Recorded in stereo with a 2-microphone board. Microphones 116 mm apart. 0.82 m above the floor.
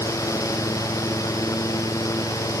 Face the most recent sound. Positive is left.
No sound to turn to.